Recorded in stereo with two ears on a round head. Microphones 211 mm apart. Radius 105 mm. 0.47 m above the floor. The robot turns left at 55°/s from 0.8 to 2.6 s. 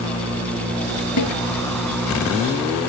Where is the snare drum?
80° left; by 1.4 s 85° left.